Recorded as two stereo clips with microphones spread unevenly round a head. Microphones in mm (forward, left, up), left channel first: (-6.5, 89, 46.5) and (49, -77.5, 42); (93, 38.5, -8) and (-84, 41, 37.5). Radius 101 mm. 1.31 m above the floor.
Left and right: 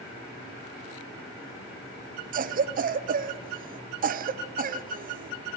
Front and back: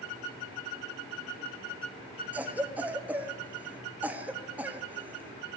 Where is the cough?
90° right, 0.6 m.